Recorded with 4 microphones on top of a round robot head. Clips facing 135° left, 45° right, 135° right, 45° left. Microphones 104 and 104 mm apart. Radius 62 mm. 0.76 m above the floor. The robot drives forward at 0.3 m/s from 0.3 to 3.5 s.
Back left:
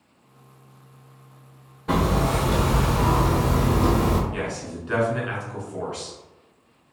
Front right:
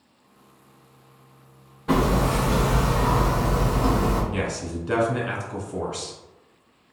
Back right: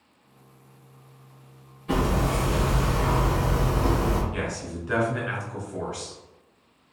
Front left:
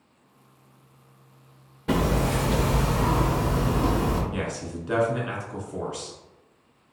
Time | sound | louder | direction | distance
1.9 | hammering | front right 1 dB, front left 1 dB | 45° left | 0.6 m
4.3 | a man speaking | front right 2 dB, even | 15° right | 1.3 m